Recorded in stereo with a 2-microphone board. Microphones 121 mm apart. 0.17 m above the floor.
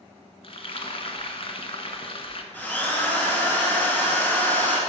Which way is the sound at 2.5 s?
15° left (ahead or behind).